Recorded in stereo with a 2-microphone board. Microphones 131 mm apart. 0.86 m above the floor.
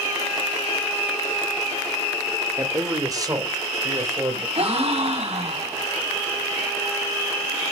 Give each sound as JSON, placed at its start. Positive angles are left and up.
{"t": 2.6, "sound": "a man speaking", "side_deg": -25, "distance_m": 2.0}
{"t": 4.5, "sound": "a gasp", "side_deg": -55, "distance_m": 6.5}